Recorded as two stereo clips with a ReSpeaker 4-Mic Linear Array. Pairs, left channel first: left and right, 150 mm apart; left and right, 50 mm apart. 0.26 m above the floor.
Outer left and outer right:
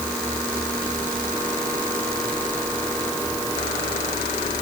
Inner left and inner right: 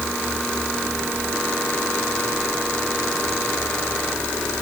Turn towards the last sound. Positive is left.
No sound to turn to.